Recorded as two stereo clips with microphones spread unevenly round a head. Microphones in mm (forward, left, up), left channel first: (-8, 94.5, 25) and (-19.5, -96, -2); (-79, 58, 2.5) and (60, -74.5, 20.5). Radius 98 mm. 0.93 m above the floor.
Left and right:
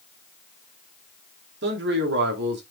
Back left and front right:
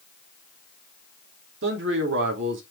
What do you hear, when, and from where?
1.6 s a man speaking: 70° right, 2.5 m